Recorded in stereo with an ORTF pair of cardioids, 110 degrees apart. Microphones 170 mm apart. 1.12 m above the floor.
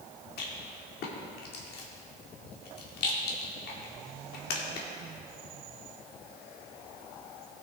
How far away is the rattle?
About 1.8 m.